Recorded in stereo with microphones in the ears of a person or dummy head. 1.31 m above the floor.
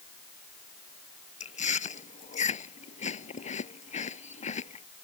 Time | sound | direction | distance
1.4 | chewing | 30° left (ahead or behind) | ?